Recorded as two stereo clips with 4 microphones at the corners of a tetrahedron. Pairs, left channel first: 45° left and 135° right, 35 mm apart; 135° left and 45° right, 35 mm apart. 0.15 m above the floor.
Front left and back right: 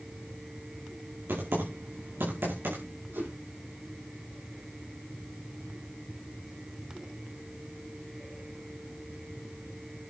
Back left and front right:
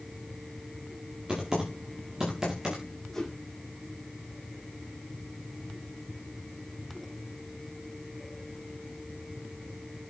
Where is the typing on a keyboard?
125° right, 5 m.